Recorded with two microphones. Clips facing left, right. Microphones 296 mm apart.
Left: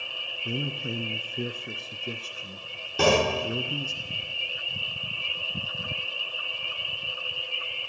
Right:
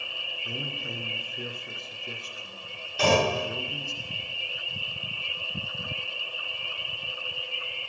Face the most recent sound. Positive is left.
turn(degrees=55)  # may be behind; listen again after turning